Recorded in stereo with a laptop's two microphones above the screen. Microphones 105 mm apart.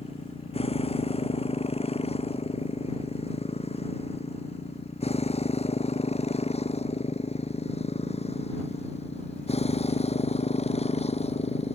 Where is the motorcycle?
70° left (ahead or behind); by 11.8 s 85° left.